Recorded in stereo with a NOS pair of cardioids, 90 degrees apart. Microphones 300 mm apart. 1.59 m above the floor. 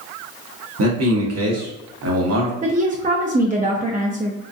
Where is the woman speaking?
25° right, 0.6 m.